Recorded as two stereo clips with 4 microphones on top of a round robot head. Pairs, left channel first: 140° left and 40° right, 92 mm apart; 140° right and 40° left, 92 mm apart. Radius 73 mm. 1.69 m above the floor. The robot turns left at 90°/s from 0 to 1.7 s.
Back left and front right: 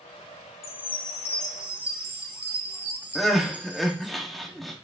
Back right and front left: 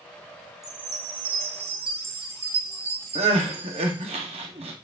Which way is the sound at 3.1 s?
50° left.